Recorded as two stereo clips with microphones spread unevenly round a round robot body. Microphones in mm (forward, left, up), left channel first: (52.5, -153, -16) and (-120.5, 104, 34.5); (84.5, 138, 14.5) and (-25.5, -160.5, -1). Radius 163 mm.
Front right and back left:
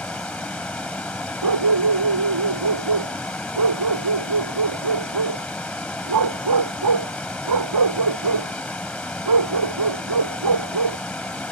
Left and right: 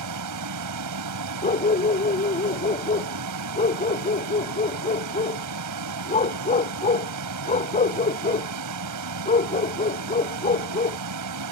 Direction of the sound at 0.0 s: 145° right.